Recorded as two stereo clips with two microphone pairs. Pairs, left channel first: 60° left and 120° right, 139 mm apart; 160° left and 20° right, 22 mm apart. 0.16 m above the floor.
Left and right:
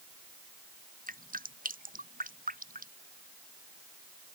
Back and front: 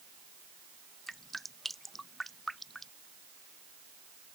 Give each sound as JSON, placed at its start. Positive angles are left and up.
{"t": 1.1, "sound": "dripping", "azimuth_deg": -115}